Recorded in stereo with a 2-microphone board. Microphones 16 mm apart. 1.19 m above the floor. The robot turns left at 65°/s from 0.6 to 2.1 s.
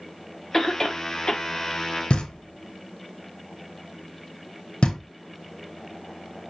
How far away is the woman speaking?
No woman speaking in this recording.